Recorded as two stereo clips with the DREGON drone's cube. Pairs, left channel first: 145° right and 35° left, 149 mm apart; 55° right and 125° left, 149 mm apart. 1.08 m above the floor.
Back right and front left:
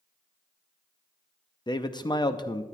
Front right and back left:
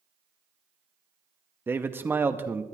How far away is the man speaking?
About 0.6 m.